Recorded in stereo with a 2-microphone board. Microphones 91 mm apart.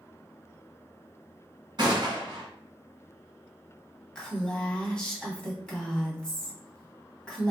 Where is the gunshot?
55° right (ahead or behind), 1.5 m.